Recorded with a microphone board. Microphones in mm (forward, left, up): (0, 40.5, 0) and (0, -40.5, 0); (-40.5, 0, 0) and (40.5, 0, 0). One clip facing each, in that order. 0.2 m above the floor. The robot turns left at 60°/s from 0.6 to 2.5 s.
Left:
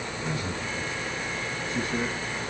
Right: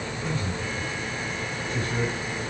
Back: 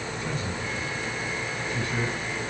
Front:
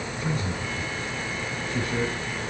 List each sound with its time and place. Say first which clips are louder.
0.2 s a man speaking: right 1 dB, front 4 dB; 10° left, 2 m; by 2.2 s 85° right, 2 m